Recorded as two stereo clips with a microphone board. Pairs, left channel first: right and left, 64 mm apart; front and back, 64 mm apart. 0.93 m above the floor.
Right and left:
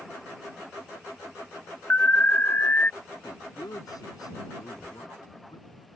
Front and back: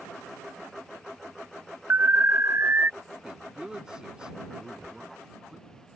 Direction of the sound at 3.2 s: 105° right.